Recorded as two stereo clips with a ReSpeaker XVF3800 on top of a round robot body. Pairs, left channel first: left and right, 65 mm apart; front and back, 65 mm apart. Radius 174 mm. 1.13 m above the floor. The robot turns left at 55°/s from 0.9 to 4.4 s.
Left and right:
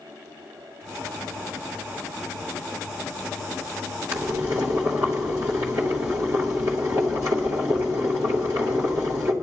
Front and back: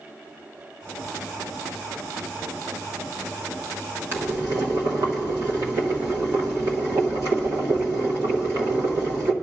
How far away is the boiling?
About 1.1 m.